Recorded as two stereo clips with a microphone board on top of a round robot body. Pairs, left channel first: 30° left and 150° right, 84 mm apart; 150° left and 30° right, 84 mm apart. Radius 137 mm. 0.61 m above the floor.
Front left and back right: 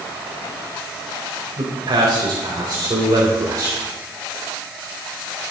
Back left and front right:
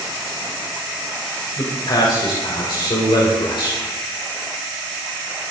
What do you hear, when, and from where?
1.6 s a man speaking: 175° right, 4 m; by 3.8 s 165° left, 3.5 m